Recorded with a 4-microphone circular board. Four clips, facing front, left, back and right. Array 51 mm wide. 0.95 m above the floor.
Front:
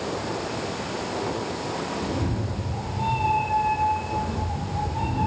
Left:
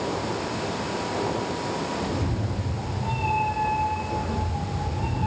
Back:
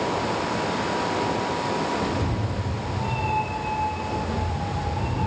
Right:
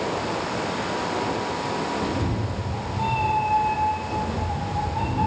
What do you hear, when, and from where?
2.0 s a cat meowing: 75° right, 6.5 m